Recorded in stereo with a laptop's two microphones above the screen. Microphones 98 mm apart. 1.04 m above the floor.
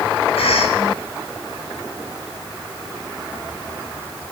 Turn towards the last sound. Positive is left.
turn(degrees=80)